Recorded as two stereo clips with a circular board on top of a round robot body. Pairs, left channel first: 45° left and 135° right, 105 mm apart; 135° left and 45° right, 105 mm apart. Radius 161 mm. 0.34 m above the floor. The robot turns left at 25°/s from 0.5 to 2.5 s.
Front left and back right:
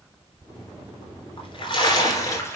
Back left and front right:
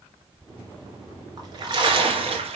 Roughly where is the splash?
Ahead.